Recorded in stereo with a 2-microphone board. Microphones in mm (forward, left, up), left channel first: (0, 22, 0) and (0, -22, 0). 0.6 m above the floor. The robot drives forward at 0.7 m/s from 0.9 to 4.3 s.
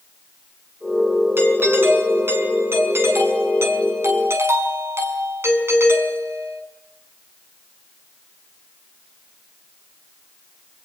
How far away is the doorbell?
About 7 m.